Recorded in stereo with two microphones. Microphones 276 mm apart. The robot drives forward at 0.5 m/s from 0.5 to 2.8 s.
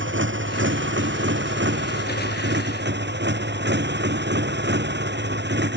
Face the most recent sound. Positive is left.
turn(degrees=-40)  # may be behind; listen again after turning